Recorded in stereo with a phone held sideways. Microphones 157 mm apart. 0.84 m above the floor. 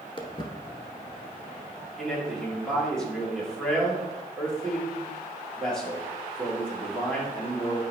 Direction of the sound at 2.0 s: 5° left (ahead or behind).